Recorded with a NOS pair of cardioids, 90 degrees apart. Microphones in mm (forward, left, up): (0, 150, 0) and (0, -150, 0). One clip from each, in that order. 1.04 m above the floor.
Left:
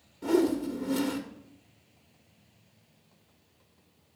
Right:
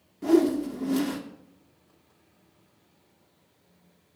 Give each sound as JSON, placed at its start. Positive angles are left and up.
{"t": 0.2, "sound": "a whoosh", "azimuth_deg": -10, "distance_m": 1.3}